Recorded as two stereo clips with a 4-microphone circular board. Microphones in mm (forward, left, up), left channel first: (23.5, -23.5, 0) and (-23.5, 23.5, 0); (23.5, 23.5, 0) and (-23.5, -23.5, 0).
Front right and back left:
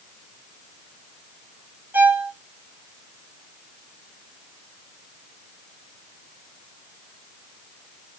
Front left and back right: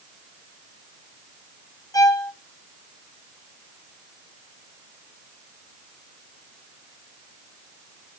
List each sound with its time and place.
1.9 s a violin: 75° left, 1.4 m